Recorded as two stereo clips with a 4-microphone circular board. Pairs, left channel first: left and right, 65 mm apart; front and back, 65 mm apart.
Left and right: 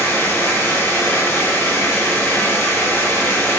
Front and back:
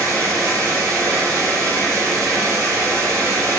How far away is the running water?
About 2.5 m.